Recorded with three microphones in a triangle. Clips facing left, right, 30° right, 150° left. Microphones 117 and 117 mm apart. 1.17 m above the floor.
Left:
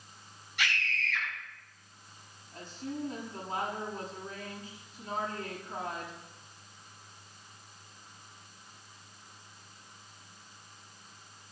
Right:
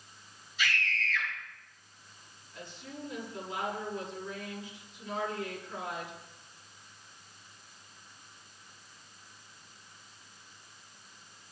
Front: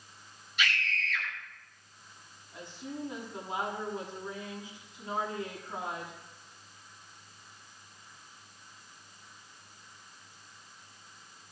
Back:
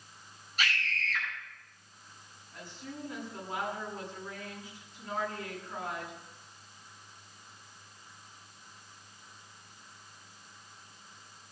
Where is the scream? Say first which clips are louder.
Right 1 dB, front 1 dB; 100° left, 10 m.